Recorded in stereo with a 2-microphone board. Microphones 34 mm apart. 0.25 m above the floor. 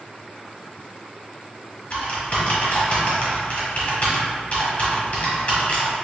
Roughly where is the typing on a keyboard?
Left.